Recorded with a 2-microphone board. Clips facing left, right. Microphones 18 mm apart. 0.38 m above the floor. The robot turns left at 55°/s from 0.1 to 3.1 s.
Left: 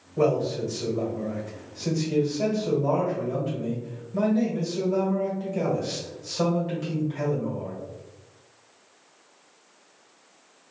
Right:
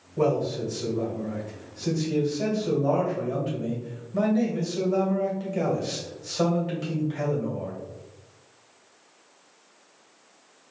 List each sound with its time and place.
0.2 s a man speaking: 150° left, 1.8 m; by 7.8 s 10° right, 1.8 m